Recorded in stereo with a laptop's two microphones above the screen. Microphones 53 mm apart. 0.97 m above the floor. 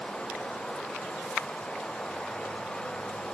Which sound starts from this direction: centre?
Running water, at 0.0 s.